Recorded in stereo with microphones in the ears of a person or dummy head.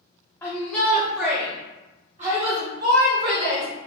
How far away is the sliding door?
I don't hear a sliding door.